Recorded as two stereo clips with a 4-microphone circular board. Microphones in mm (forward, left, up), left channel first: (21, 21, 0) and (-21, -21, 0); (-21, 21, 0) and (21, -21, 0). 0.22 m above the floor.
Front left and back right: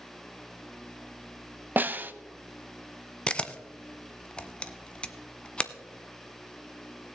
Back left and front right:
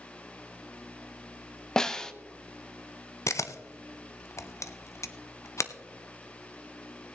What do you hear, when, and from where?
1.8 s a snare drum: 160° right, 0.6 m
3.3 s a camera shutter: 115° left, 0.6 m